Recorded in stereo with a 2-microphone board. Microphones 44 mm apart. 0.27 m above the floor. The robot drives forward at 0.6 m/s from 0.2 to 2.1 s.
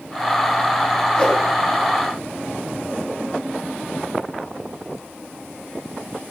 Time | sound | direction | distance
1.2 | a whoosh | 20° left (ahead or behind) | 2.5 m